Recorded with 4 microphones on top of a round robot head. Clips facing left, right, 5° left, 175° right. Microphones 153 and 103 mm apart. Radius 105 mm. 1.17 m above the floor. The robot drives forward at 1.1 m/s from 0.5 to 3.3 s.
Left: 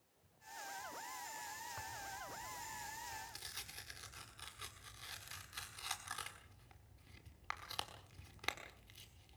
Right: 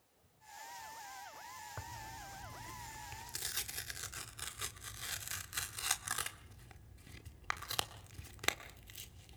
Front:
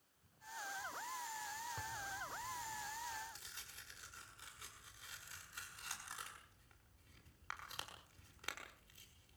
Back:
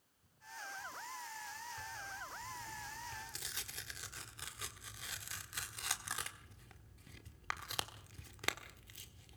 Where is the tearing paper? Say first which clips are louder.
Right 1 dB, front 1 dB; 50° right, 1.2 m; by 9.4 s 140° right, 1.4 m.